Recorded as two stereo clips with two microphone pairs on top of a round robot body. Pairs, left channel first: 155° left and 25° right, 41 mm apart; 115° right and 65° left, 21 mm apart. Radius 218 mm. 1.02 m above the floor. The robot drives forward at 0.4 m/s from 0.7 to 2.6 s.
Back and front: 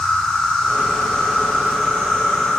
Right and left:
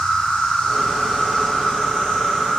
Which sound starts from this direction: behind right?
An insect, at 0.0 s.